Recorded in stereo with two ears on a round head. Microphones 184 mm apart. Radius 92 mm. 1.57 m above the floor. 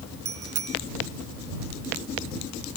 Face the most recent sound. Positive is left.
turn(degrees=-85)